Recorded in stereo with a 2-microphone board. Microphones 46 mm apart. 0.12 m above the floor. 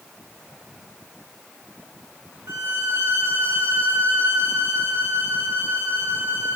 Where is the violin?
85° right, 7 m.